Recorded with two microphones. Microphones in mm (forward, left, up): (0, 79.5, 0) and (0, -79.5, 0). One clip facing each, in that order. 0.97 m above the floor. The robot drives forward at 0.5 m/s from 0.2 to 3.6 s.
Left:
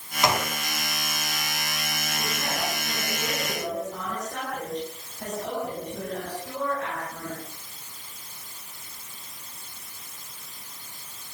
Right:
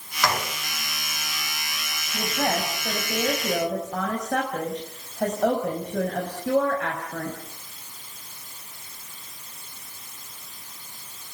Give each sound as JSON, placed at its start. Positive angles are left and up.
{"t": 0.2, "sound": "a gunshot", "side_deg": 20, "distance_m": 2.5}
{"t": 2.1, "sound": "a woman speaking", "side_deg": -70, "distance_m": 5.0}